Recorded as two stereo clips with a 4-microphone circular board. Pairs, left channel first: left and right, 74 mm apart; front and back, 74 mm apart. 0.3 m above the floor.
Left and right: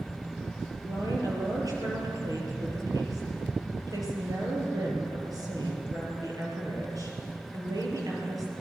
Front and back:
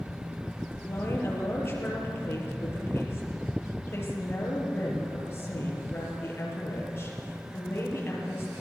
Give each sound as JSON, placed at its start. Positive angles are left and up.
{"t": 0.9, "sound": "a woman speaking", "azimuth_deg": -55, "distance_m": 6.0}